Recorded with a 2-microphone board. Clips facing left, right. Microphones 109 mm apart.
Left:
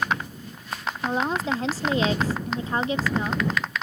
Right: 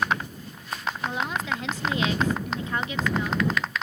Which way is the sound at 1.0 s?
35° left (ahead or behind).